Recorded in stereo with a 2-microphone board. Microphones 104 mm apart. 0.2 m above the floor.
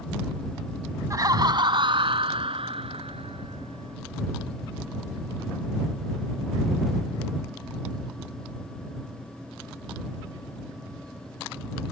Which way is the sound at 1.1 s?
35° right (ahead or behind).